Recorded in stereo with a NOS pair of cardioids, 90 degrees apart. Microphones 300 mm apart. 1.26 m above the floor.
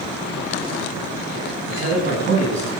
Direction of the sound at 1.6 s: 40° right.